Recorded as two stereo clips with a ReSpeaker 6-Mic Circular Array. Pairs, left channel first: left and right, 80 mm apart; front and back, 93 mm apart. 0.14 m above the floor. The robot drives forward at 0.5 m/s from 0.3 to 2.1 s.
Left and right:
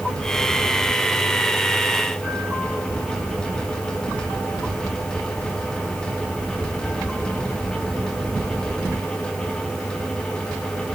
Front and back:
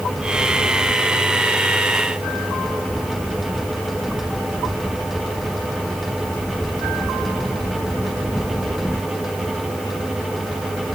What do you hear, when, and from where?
Only background noise.